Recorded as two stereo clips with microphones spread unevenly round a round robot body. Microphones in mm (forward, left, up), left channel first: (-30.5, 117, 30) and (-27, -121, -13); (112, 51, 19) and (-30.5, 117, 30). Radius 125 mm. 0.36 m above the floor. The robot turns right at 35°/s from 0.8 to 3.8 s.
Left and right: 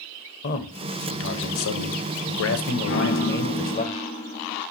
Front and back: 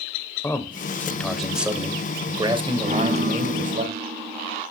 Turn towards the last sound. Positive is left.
turn(degrees=155)